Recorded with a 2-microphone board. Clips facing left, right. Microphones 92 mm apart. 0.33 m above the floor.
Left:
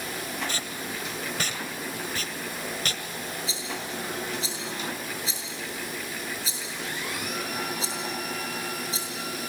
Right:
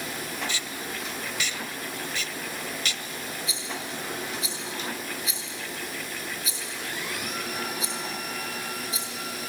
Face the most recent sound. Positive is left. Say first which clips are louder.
# left 1 dB
turn(degrees=30)  # may be behind; listen again after turning